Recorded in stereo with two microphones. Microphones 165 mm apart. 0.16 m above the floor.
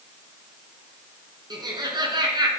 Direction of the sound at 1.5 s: 25° right (ahead or behind).